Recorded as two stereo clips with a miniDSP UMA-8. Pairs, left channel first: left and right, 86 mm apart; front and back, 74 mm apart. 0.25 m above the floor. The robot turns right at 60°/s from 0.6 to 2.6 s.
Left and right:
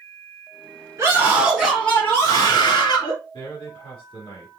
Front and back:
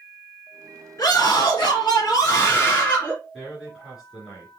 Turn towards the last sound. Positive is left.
turn(degrees=95)